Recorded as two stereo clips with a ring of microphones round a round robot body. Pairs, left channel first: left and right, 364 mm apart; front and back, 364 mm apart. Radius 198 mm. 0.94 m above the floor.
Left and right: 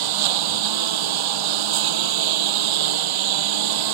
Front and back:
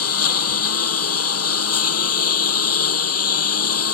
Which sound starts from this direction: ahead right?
A lawn mower, at 0.0 s.